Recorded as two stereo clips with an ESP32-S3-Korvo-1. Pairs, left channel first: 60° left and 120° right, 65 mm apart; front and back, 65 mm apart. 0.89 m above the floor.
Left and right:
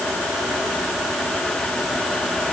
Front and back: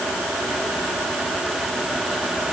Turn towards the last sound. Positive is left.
No sound to turn to.